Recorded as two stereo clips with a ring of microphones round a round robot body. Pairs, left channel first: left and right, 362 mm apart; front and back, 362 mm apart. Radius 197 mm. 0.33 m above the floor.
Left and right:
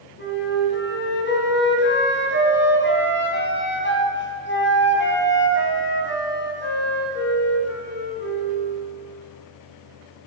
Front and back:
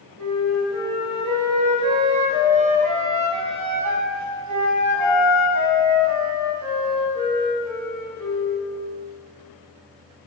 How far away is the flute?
About 2.5 m.